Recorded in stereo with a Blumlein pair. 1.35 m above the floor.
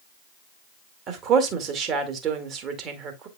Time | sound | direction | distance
1.1 | a woman speaking | 30° right | 2 m